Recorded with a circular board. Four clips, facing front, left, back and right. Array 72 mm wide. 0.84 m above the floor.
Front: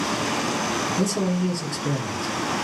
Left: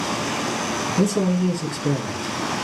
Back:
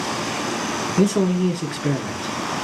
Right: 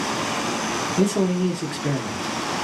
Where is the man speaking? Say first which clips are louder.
Even, back 9 dB; 165° right, 1.1 m.